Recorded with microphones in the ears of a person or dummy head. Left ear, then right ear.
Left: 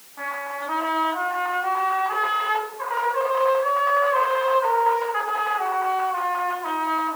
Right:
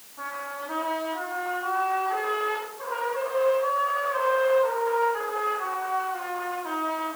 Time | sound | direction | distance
0.2 | a trumpet | 45° left (ahead or behind) | 2.5 m